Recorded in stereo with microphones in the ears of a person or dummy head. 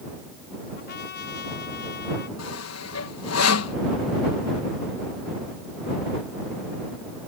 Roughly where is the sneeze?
I don't hear a sneeze.